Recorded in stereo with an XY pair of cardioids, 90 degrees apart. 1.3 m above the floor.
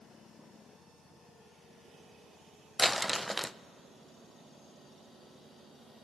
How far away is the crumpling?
About 0.7 m.